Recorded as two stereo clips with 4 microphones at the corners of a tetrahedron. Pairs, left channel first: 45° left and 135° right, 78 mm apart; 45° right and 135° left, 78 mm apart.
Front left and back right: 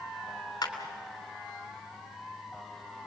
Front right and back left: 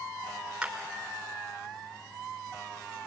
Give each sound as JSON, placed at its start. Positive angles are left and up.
{"t": 0.6, "sound": "a clap", "azimuth_deg": 55, "distance_m": 3.0}